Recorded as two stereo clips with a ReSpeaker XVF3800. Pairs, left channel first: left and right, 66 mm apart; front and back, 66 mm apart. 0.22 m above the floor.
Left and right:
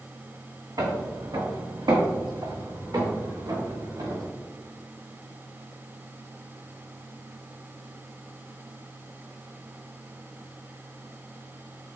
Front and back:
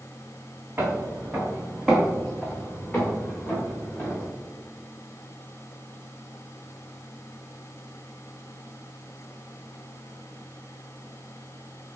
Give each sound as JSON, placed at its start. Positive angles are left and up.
{"t": 0.8, "sound": "footsteps", "azimuth_deg": -120, "distance_m": 1.3}